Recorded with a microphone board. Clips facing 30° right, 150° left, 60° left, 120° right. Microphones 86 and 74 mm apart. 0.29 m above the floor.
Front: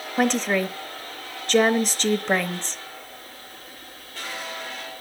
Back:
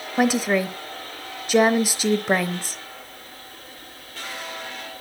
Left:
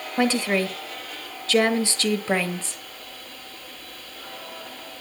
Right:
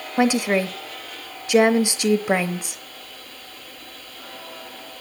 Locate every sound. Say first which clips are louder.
0.2 s a woman speaking: back 2 dB, right 3 dB; 145° right, 0.9 m